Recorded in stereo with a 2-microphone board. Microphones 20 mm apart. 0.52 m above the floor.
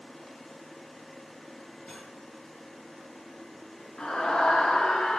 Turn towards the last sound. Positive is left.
turn(degrees=45)  # may be behind; listen again after turning